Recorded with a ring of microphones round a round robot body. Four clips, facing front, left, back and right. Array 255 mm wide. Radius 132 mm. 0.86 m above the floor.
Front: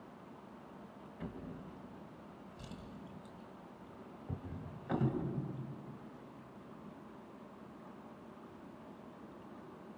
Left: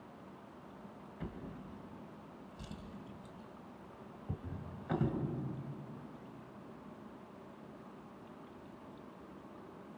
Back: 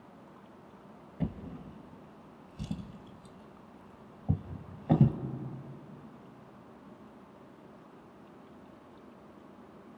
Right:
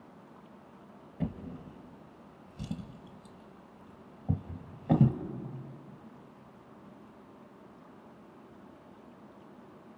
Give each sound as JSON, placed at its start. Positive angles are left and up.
{"t": 1.2, "sound": "a drawer", "azimuth_deg": -135, "distance_m": 1.7}